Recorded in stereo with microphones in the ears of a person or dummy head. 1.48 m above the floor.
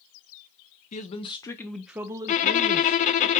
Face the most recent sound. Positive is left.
turn(degrees=35)  # may be behind; listen again after turning